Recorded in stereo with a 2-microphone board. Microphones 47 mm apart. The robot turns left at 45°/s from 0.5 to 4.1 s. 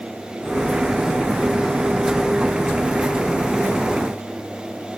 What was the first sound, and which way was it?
Only background noise.